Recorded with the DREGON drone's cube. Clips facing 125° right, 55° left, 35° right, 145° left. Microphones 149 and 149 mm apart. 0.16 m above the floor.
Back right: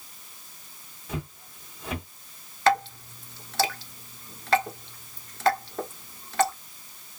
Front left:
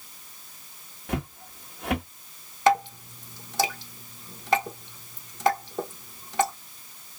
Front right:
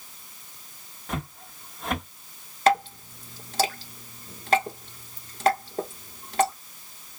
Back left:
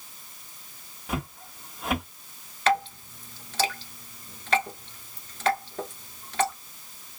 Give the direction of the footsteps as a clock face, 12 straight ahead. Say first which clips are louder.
Front left 5 dB, back left 1 dB; 10 o'clock.